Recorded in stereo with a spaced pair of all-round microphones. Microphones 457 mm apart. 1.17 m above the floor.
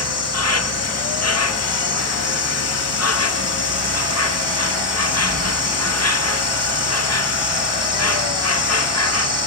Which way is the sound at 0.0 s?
35° left (ahead or behind).